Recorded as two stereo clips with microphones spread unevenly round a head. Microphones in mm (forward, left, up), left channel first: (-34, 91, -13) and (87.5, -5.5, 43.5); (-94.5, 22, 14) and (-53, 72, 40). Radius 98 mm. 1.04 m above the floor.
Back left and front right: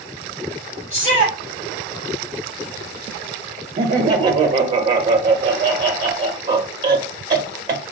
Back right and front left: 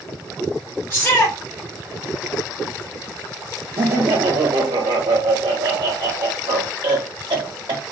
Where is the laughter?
5° left, 0.5 m.